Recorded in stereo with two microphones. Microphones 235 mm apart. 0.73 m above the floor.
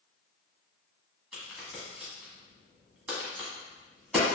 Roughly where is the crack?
Centre.